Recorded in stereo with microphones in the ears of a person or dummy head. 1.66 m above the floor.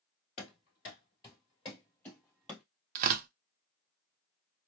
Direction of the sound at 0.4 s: 30° left (ahead or behind).